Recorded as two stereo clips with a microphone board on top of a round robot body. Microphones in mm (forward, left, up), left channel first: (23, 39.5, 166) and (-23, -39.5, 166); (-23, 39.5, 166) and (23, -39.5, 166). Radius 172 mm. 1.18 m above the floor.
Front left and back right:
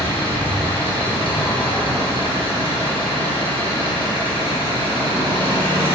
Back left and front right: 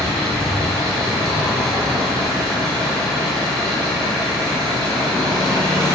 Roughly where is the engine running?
Ahead left.